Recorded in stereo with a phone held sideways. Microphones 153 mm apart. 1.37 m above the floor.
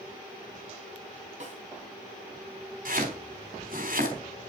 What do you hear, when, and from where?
1.4 s a snare drum: 50° right (ahead or behind), 2.5 m
2.9 s chopping: 65° right (ahead or behind), 3.5 m